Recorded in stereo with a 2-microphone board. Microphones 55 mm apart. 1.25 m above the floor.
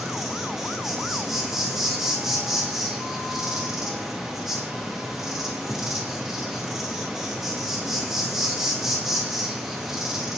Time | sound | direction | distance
0.0 | an insect | 5° right (ahead or behind) | 1.0 m